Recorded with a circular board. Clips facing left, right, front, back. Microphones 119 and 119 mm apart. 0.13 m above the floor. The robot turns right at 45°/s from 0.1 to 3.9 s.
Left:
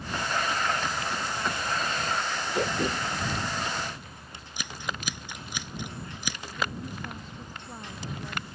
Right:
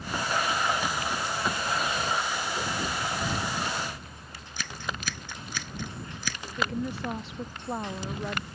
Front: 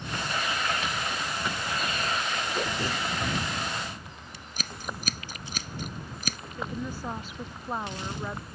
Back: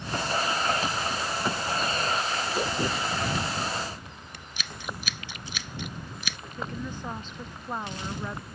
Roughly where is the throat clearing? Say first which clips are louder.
Left 4 dB, back 3 dB; left.